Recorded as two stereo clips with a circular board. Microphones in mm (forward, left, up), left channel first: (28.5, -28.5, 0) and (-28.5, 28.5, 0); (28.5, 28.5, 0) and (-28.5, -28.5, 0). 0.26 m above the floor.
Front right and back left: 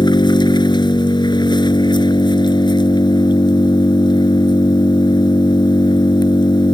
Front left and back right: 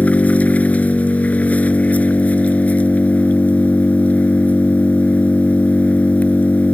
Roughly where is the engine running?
Ahead right.